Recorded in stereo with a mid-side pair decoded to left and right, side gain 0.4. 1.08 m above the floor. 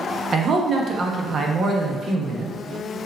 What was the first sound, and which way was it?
A man speaking, 55° right.